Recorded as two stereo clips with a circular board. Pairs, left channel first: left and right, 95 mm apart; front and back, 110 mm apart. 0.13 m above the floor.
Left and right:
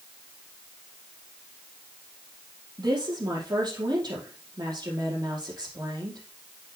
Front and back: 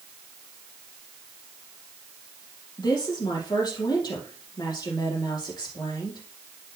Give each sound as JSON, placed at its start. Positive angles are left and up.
{"t": 2.8, "sound": "a woman speaking", "azimuth_deg": -50, "distance_m": 4.5}